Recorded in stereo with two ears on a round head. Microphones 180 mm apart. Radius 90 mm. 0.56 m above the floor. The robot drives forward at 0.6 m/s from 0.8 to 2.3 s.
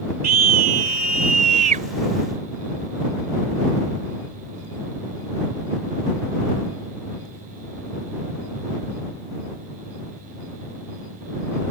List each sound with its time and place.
0.2 s a scream: 50° right (ahead or behind); by 1.9 s 40° right (ahead or behind)